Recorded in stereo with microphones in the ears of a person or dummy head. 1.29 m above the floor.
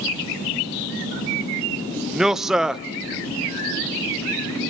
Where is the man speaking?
Centre (ahead or behind), 0.5 m.